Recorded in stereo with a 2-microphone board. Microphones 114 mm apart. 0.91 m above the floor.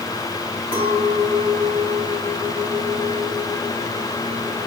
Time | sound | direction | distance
0.7 | a clink | 40° left (ahead or behind) | 4.5 m